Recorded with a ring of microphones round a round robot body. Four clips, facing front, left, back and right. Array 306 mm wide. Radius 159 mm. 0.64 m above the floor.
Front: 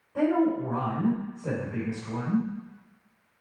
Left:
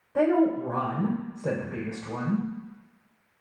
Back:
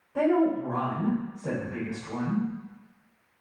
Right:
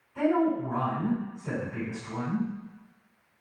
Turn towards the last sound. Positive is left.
turn(degrees=95)